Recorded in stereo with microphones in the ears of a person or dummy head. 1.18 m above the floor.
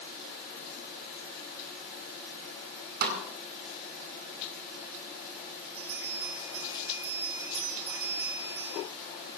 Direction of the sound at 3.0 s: 60° right (ahead or behind).